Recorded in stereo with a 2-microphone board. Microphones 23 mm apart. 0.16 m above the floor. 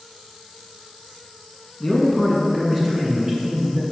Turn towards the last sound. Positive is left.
turn(degrees=-30)  # may be behind; listen again after turning